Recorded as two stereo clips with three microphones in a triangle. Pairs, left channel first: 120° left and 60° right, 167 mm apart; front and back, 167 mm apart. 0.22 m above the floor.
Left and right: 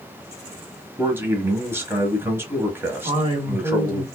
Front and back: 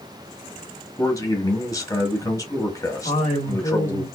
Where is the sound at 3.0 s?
10° right, 2.5 m.